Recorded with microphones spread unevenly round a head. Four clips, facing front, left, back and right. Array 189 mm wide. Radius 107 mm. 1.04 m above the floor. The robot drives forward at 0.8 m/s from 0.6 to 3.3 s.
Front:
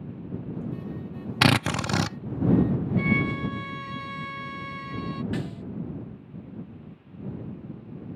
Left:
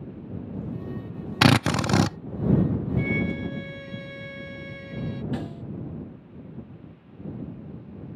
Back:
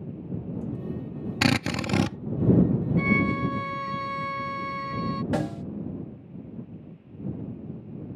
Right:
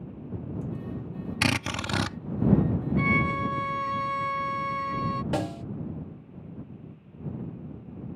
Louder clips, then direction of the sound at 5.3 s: Right 3 dB, back 5 dB; 125° right.